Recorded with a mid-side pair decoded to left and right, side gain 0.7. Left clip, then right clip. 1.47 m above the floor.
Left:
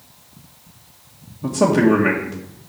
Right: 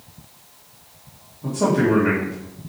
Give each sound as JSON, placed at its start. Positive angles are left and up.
{"t": 1.4, "sound": "a man speaking", "azimuth_deg": 35, "distance_m": 1.5}